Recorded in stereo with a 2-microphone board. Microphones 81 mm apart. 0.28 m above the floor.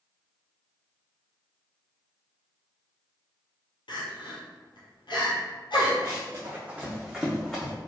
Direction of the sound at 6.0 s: 40° right (ahead or behind).